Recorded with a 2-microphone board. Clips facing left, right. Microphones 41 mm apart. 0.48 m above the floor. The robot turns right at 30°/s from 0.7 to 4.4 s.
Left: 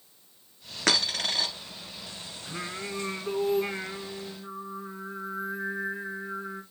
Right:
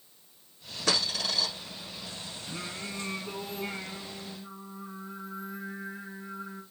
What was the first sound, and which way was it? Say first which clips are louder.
A dropped coin: left 3 dB; 80° left.